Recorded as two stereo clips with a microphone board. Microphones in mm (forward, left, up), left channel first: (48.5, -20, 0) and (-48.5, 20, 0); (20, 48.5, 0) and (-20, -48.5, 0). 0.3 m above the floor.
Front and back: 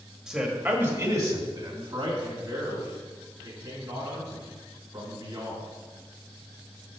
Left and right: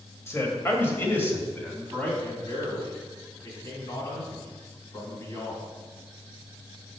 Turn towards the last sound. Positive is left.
turn(degrees=115)